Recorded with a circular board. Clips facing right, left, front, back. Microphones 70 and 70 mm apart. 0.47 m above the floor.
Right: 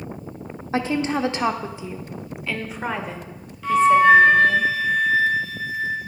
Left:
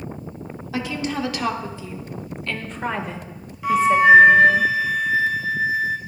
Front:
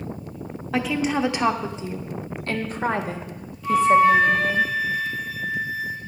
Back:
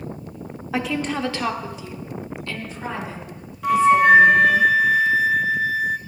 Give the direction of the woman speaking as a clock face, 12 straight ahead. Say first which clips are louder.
Right 4 dB, front 2 dB; 3 o'clock.